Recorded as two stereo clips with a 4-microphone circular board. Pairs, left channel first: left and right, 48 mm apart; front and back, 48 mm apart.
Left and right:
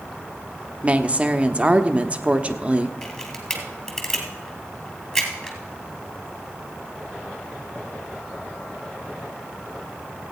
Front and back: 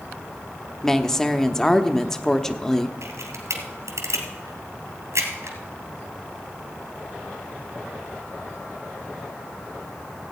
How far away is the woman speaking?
About 0.7 m.